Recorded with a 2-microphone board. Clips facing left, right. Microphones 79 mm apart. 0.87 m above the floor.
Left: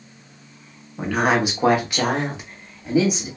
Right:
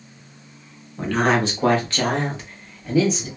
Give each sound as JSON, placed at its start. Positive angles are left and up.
{"t": 1.0, "sound": "a woman speaking", "side_deg": 10, "distance_m": 0.7}